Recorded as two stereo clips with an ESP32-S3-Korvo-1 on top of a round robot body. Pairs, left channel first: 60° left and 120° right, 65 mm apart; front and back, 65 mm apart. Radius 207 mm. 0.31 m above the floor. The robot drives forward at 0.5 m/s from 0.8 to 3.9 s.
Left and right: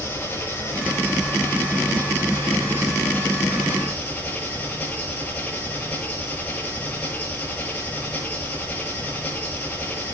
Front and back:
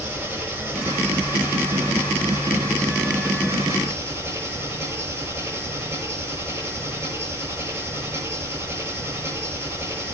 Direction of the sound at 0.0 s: 120° left.